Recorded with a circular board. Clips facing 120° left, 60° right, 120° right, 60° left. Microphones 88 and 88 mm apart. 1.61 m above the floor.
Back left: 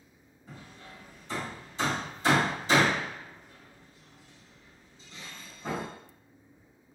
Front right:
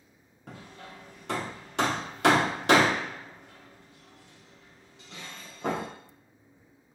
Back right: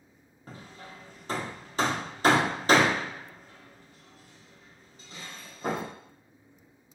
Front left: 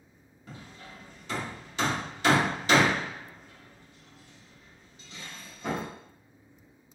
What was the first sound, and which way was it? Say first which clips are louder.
Hammering: front right 3 dB, back right 1 dB; 75° right.